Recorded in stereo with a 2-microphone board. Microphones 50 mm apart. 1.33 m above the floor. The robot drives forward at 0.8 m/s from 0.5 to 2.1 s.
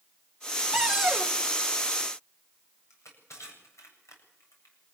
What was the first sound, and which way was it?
A cupboard door, 10° right (ahead or behind).